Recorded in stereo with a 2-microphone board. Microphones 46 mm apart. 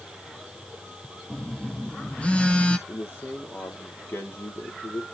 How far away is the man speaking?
About 4 m.